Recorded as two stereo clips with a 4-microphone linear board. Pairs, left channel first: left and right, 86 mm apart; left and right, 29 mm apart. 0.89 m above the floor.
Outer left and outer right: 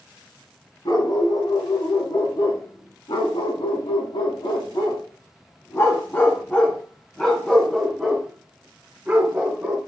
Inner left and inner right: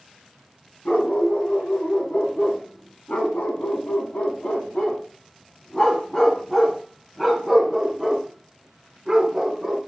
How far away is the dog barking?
About 3 m.